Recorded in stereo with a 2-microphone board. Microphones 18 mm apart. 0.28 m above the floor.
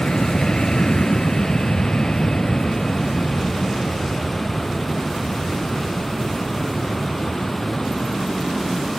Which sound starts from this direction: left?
An aircraft, at 0.0 s.